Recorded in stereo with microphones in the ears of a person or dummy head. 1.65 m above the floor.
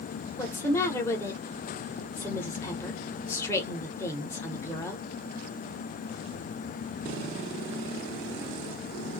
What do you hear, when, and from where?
0.4 s a woman speaking: 15° left (ahead or behind), 1.3 m